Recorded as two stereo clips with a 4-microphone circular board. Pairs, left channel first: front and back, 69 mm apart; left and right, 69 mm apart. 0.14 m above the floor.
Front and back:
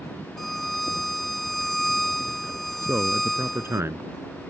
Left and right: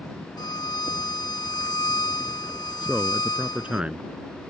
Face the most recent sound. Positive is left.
turn(degrees=-155)